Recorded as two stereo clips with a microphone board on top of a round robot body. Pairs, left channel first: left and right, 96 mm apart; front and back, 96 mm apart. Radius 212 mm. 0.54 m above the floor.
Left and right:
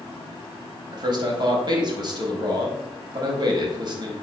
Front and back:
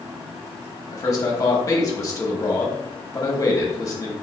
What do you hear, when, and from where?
0.9 s a man speaking: 55° right, 1.5 m